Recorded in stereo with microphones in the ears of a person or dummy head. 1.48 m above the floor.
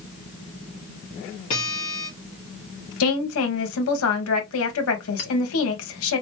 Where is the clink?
35° left (ahead or behind), 1.2 m.